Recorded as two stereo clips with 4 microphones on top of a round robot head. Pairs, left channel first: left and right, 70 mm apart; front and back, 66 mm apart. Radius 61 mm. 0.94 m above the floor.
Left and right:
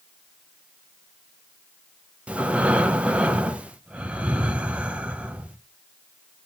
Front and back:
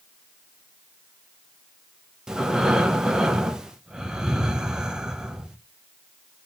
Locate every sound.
2.3 s breathing: 120° right, 0.8 m